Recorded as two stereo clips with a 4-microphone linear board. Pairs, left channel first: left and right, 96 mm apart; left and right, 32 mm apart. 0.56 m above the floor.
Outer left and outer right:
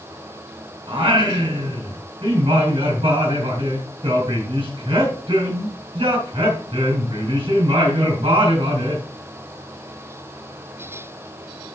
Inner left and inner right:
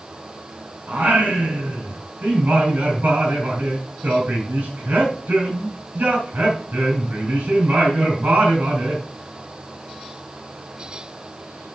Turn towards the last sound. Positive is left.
turn(degrees=-75)  # may be behind; listen again after turning